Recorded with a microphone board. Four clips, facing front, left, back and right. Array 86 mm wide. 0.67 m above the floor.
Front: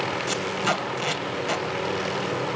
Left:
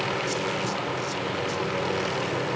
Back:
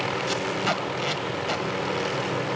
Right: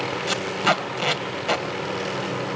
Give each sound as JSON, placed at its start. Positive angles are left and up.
{"t": 0.3, "sound": "tape being pulled", "azimuth_deg": -85, "distance_m": 1.5}